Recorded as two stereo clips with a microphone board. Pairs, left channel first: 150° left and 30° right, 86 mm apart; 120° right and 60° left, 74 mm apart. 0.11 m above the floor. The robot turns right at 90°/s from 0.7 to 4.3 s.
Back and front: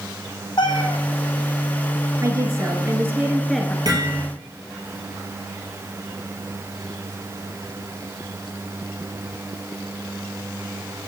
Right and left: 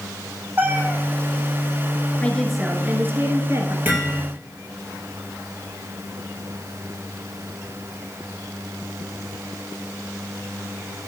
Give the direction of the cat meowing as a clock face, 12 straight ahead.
8 o'clock.